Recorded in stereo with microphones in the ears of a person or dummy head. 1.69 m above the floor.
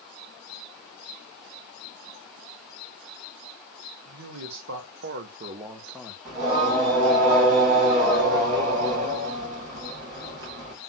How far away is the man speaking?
About 1.0 m.